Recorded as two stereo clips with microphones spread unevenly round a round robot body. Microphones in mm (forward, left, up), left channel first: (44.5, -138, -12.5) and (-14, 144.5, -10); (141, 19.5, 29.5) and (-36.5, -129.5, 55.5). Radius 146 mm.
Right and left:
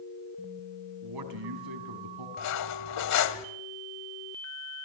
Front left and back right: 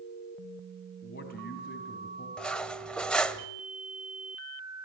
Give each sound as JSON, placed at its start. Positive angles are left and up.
{"t": 1.0, "sound": "a man speaking", "azimuth_deg": 95, "distance_m": 4.5}
{"t": 2.4, "sound": "cutlery clinking", "azimuth_deg": -45, "distance_m": 1.5}